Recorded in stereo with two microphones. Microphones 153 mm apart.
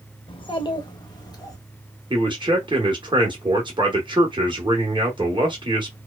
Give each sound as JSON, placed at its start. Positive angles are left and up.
{"t": 0.3, "sound": "a child speaking", "side_deg": 35, "distance_m": 0.6}
{"t": 2.1, "sound": "a man speaking", "side_deg": -30, "distance_m": 0.8}